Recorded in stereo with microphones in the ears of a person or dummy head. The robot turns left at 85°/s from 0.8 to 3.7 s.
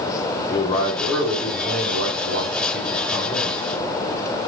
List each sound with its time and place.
0.5 s a man speaking: 30° left, 2 m; by 3.6 s 150° left, 2 m